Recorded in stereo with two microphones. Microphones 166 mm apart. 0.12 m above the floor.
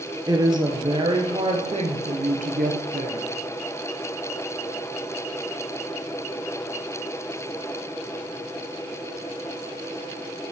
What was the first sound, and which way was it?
A woman speaking, 20° right (ahead or behind).